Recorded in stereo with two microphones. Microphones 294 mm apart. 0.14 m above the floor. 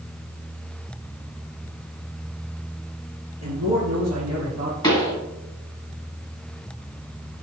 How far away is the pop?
About 2 m.